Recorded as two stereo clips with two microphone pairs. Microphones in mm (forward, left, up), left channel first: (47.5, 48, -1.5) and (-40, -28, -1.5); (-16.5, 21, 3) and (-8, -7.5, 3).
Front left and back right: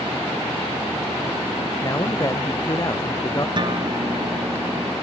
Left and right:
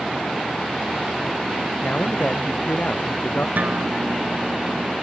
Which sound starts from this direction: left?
A man speaking, at 1.8 s.